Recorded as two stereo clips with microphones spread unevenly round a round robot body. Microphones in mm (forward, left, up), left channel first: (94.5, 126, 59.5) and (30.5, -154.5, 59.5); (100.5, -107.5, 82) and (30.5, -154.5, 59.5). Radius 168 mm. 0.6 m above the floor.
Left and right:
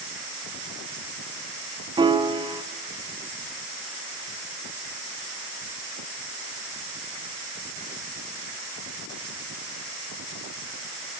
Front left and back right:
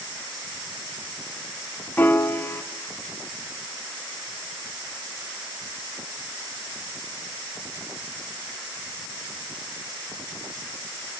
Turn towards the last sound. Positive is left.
turn(degrees=-30)